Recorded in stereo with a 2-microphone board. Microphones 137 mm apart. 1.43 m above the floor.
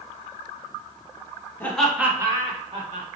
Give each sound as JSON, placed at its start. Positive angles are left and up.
{"t": 1.6, "sound": "laughter", "side_deg": 15, "distance_m": 1.1}